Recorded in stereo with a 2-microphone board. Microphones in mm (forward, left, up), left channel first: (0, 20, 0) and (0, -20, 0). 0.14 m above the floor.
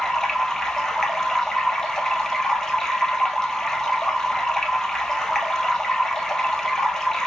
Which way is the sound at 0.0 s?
15° left (ahead or behind).